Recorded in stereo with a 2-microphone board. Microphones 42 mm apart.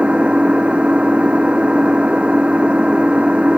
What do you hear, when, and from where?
0.0 s an engine running: 30° right (ahead or behind)